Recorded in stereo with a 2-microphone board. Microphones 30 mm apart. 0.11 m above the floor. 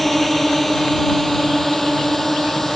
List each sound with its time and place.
0.0 s a drone: 5° left (ahead or behind); by 2.8 s 10° left (ahead or behind)